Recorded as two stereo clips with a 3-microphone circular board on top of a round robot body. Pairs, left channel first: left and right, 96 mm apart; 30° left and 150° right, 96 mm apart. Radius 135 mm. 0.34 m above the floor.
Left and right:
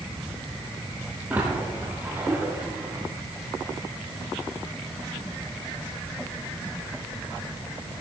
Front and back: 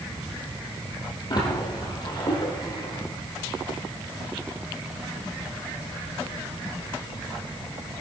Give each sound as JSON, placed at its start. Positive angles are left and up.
{"t": 1.3, "sound": "a splash", "azimuth_deg": -15, "distance_m": 4.5}